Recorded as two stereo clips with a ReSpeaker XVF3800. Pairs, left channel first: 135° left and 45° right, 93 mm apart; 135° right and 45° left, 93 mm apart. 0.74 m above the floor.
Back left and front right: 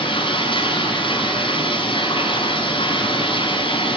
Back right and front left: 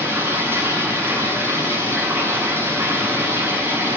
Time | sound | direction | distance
0.0 | running water | 115° left | 5.5 m